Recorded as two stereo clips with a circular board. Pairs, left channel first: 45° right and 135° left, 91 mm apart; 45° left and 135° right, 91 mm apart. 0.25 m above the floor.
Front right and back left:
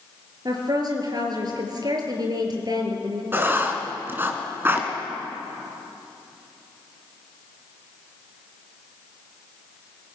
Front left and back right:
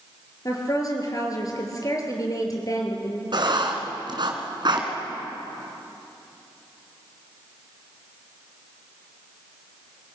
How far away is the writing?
About 2.5 m.